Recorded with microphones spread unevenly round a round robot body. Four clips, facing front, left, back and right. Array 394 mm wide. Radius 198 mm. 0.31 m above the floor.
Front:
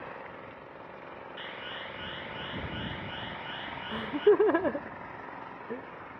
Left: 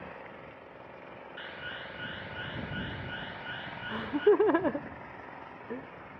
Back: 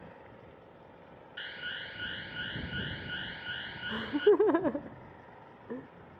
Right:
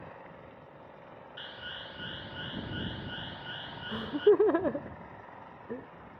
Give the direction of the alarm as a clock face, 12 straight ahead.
3 o'clock.